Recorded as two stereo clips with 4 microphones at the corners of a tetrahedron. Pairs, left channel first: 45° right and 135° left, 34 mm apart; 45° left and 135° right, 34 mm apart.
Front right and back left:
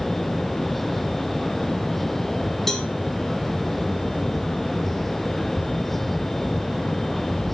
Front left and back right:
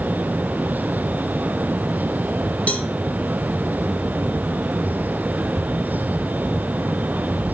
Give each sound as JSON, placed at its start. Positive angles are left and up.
{"t": 2.7, "sound": "a cowbell", "azimuth_deg": 25, "distance_m": 1.2}